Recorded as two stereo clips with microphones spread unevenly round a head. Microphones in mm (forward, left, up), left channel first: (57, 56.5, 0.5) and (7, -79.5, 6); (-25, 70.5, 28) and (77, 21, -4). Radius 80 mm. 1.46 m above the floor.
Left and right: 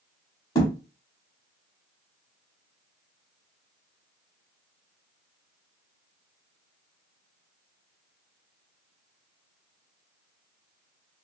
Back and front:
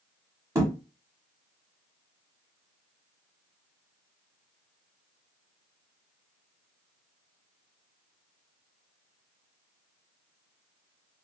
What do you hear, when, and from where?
0.6 s a thud: 40° left, 1.4 m